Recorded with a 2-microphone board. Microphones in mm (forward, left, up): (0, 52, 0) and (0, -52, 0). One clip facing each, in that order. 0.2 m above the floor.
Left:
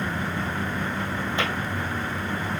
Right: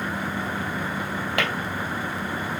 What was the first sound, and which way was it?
Tapping, 80° right.